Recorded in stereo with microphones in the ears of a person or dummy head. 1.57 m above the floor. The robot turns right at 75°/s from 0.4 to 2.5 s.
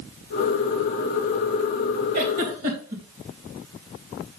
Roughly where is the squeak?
I don't hear a squeak.